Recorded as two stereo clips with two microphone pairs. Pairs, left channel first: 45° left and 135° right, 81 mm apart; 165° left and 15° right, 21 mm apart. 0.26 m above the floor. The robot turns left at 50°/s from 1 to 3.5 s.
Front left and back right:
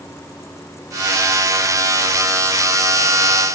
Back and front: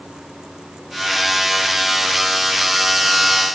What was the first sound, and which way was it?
Only background noise.